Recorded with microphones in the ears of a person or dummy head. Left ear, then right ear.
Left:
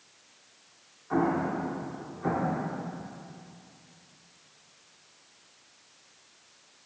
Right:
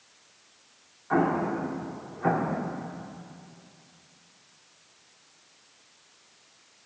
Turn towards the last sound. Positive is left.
turn(degrees=-30)  # may be behind; listen again after turning